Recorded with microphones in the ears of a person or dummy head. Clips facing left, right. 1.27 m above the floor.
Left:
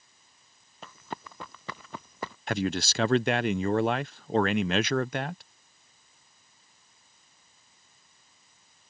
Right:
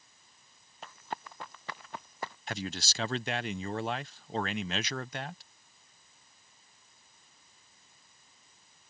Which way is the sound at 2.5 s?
45° left (ahead or behind).